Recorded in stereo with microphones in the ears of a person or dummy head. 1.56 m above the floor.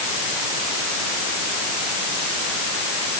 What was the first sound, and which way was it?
Only background noise.